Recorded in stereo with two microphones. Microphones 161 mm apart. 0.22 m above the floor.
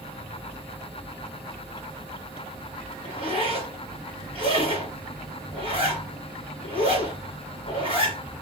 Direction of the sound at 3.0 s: 35° right (ahead or behind).